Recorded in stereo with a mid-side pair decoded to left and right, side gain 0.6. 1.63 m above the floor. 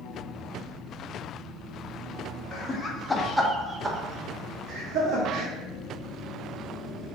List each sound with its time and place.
2.5 s laughter: 55° left, 0.7 m; by 5.5 s 55° right, 1.5 m